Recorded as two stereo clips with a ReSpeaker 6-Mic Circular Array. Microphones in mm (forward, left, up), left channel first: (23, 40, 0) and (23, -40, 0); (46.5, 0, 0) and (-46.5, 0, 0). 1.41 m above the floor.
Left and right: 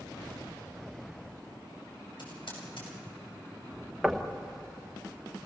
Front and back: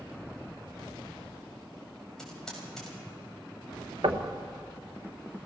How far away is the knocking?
About 1.4 m.